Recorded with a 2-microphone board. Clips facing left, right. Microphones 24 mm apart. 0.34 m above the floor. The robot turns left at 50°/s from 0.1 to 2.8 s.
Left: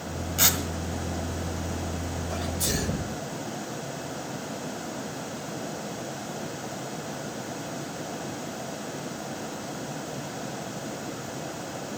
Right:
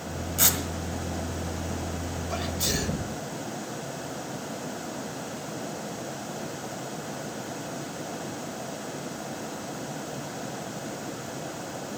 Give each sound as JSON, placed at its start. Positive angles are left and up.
{"t": 0.4, "sound": "tearing paper", "side_deg": 20, "distance_m": 1.7}
{"t": 2.3, "sound": "a sneeze", "side_deg": -30, "distance_m": 1.1}